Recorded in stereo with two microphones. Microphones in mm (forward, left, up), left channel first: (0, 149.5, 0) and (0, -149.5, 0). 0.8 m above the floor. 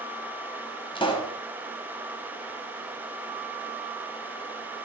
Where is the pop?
15° left (ahead or behind), 4 m.